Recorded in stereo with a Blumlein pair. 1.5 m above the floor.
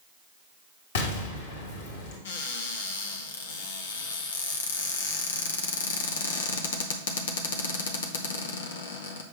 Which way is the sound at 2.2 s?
60° left.